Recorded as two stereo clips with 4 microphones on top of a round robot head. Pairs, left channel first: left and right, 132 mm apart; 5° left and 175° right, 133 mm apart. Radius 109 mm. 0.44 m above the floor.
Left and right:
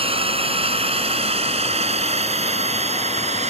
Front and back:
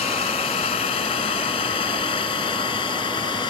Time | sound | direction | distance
0.0 | a drone | 45° right | ?